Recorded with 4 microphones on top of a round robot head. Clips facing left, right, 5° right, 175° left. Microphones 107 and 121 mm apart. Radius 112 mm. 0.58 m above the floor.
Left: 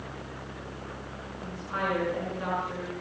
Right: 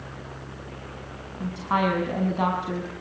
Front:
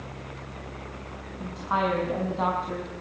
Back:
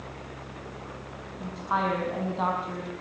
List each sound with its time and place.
1.4 s a woman speaking: 95° right, 5.5 m